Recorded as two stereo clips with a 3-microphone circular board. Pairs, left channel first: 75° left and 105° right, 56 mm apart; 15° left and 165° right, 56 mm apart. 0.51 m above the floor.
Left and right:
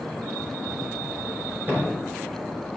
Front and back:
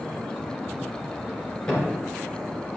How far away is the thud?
About 3 m.